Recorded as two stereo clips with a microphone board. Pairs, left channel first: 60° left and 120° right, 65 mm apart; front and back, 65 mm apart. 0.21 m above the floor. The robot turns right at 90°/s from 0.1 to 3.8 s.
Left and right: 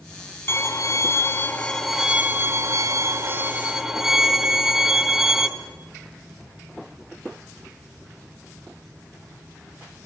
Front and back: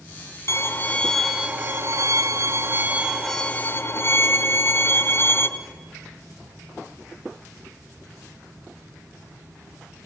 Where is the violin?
20° left, 1.8 m; by 5.5 s 40° right, 1.8 m.